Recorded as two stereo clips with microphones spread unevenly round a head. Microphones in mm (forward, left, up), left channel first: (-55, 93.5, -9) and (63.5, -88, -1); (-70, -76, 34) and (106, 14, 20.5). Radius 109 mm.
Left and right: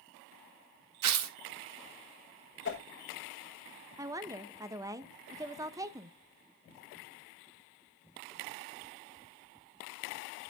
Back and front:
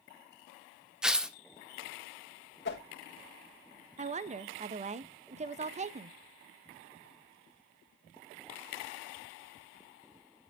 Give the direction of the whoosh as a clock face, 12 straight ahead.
7 o'clock.